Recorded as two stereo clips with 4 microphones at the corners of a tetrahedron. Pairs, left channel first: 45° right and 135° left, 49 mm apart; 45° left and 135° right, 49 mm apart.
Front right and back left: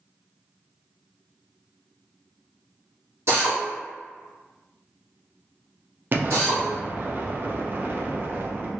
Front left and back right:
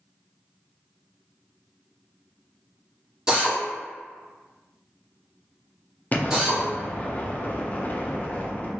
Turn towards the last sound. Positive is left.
turn(degrees=95)